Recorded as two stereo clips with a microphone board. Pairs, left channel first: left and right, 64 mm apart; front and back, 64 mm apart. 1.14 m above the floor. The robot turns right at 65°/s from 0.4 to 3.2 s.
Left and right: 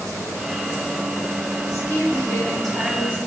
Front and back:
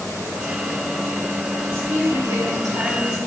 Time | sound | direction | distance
1.7 | a woman speaking | 115° left | 3 m